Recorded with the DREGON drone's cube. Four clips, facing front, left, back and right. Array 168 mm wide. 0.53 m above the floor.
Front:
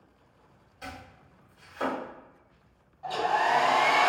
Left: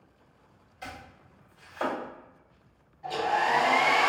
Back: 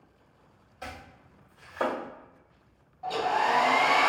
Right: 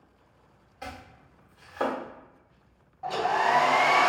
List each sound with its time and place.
0.8 s chopping: 115° right, 1.5 m
3.0 s a hair dryer: 105° right, 0.7 m